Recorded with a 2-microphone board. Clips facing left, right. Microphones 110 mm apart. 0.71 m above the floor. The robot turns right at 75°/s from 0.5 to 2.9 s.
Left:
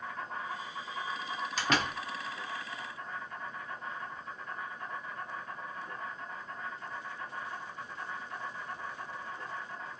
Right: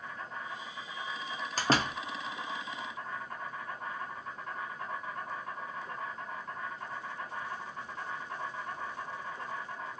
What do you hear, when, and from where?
0.0 s an insect: 85° left, 1.5 m; by 10.0 s 95° right, 1.5 m
1.6 s a door slam: 45° right (ahead or behind), 0.7 m; by 2.0 s 15° right (ahead or behind), 0.7 m